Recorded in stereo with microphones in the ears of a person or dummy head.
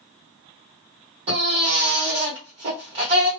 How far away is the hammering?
No hammering in this recording.